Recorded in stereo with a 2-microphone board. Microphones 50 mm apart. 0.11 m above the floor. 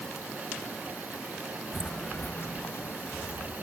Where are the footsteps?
10° left (ahead or behind), 0.5 m; by 3.6 s 80° left, 1.9 m.